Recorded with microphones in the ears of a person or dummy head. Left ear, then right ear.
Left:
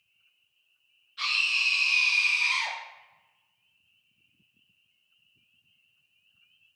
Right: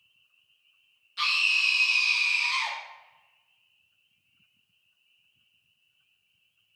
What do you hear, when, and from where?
1.2 s a scream: 30° right (ahead or behind), 0.5 m; by 2.8 s 60° left (ahead or behind), 0.9 m